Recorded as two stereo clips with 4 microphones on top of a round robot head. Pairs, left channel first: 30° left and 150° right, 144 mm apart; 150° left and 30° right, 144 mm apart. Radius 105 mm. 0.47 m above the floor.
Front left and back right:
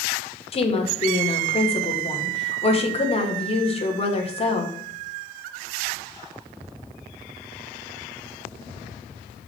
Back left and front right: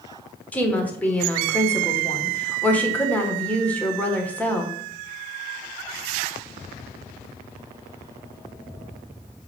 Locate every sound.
0.5 s a woman speaking: 70° left, 1.5 m